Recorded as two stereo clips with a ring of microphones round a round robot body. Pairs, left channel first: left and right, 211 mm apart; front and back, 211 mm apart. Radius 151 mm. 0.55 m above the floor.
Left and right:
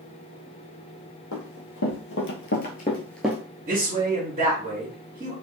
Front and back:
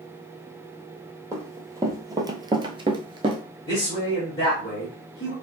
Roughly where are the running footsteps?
Left.